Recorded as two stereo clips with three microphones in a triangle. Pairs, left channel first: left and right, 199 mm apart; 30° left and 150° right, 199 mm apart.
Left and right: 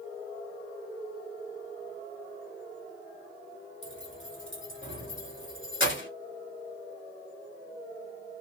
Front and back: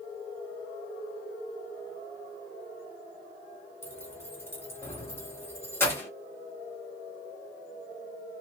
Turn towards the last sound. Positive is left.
turn(degrees=110)